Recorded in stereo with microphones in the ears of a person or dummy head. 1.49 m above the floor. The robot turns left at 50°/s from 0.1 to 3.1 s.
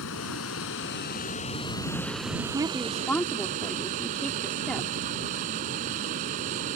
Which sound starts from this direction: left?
Running water, at 0.0 s.